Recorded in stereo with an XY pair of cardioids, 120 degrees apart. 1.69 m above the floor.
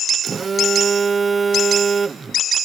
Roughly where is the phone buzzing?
Ahead right.